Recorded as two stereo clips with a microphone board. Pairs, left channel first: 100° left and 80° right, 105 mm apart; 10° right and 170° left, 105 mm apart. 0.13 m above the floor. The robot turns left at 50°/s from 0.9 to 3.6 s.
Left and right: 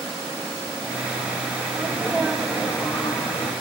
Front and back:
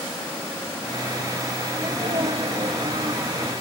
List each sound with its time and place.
1.7 s a sneeze: 130° right, 3.5 m; by 3.5 s 140° left, 3.5 m